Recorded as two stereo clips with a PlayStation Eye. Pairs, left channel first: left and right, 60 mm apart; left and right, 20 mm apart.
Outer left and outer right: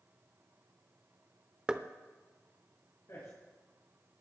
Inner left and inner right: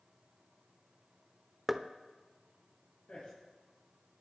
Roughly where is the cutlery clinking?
I don't hear cutlery clinking.